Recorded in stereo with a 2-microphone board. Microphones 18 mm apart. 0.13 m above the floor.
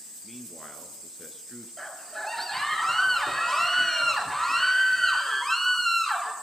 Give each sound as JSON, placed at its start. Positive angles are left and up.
{"t": 0.2, "sound": "a man speaking", "side_deg": 5, "distance_m": 1.8}
{"t": 1.8, "sound": "a scream", "side_deg": 15, "distance_m": 3.0}